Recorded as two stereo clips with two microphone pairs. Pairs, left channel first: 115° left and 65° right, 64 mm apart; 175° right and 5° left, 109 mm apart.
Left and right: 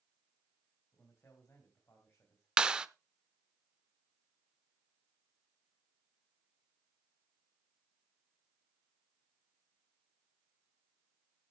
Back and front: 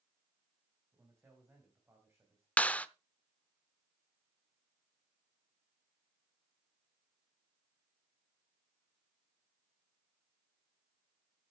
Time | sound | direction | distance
0.9 | a man speaking | 70° left | 3 m
2.6 | a clap | 125° right | 0.6 m